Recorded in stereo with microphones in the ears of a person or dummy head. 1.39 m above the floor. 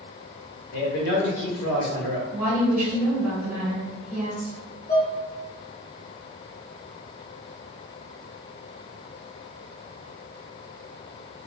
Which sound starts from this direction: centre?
A woman speaking, at 2.3 s.